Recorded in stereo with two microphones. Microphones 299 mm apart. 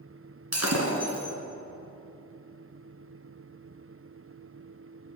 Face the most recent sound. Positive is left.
turn(degrees=-60)  # may be behind; listen again after turning